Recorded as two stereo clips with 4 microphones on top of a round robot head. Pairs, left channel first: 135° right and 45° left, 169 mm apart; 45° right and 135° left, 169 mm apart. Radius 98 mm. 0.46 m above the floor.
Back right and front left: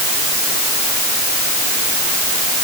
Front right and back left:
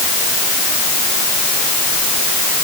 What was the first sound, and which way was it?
Only background noise.